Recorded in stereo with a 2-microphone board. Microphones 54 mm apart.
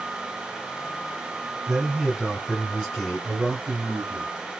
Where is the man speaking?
5° right (ahead or behind), 1.7 m; by 4.6 s 25° left (ahead or behind), 2.0 m.